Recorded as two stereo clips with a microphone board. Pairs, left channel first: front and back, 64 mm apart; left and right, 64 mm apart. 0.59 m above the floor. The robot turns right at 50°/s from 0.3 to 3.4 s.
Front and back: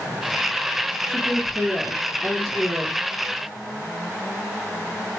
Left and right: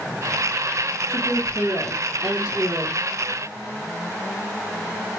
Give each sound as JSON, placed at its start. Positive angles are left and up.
{"t": 1.1, "sound": "a woman speaking", "azimuth_deg": 120, "distance_m": 1.9}